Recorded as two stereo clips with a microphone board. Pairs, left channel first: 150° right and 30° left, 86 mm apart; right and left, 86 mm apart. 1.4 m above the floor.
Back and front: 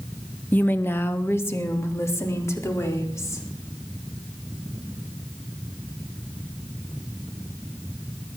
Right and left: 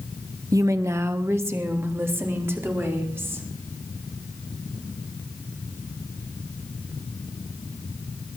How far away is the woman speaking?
About 1.1 m.